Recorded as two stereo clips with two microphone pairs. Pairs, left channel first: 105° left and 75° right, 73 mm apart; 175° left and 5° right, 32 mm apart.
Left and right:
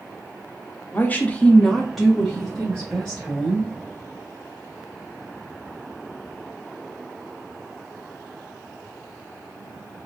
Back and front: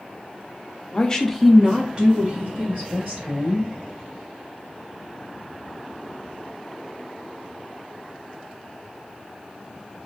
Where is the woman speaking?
145° left, 0.6 m; by 3.7 s straight ahead, 1.4 m.